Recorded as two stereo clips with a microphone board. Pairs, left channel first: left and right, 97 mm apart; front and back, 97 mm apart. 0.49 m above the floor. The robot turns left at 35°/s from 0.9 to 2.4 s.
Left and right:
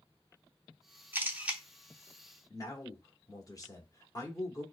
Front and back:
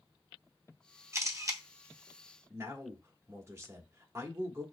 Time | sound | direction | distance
1.1 | a camera shutter | 145° right | 0.6 m
2.5 | a man speaking | 130° left | 1.0 m